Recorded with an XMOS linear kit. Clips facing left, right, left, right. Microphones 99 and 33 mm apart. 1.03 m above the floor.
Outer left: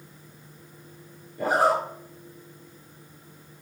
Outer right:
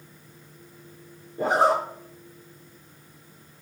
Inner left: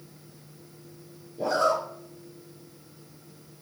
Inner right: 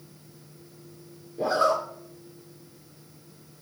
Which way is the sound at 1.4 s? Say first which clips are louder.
Outer right 1 dB, inner right 1 dB; 25° right (ahead or behind).